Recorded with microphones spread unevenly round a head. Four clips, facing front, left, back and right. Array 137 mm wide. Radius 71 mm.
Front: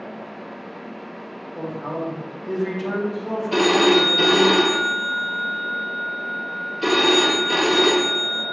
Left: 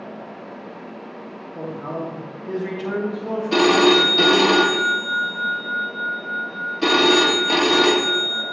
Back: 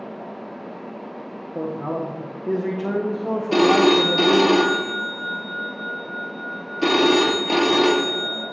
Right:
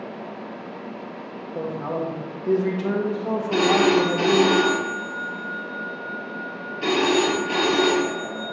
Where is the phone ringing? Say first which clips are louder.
Left 3 dB, back 1 dB; 145° left, 1.0 m.